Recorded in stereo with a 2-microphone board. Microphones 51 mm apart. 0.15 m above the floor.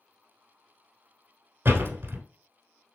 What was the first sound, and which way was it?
A door slam, 45° right (ahead or behind).